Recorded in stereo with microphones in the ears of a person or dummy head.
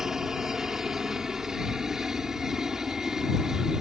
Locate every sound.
0.0 s a helicopter: 5° right (ahead or behind)